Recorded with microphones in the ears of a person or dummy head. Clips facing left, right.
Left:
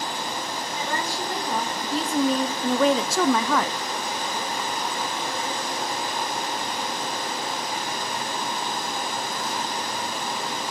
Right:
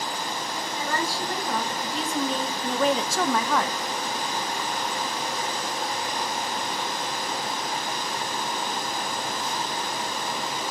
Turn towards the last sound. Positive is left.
turn(degrees=55)  # may be behind; listen again after turning